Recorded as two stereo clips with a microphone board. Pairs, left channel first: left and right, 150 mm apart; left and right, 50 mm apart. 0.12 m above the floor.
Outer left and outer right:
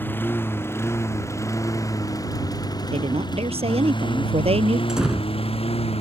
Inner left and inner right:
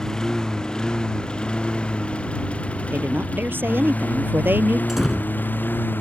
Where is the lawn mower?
15° left (ahead or behind); by 6.0 s 45° left (ahead or behind).